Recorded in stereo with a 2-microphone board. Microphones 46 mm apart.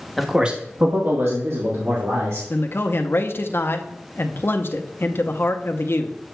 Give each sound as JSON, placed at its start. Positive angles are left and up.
{"t": 0.2, "sound": "a man speaking", "side_deg": 0, "distance_m": 1.1}
{"t": 2.5, "sound": "a man speaking", "side_deg": 55, "distance_m": 0.6}